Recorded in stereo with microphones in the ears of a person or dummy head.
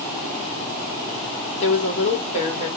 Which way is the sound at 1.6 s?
35° left (ahead or behind).